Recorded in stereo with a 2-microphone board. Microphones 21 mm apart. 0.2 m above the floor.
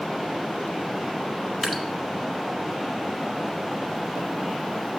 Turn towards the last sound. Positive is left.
turn(degrees=25)  # may be behind; listen again after turning